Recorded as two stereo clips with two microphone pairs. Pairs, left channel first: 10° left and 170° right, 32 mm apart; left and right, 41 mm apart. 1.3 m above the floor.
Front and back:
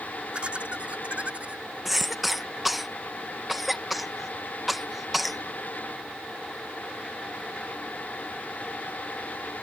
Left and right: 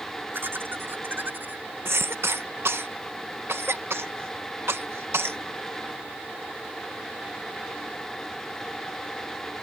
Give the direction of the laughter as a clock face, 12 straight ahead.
4 o'clock.